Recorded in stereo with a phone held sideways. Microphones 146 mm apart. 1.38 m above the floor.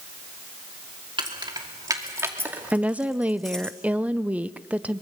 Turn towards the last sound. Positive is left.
turn(degrees=-10)  # may be behind; listen again after turning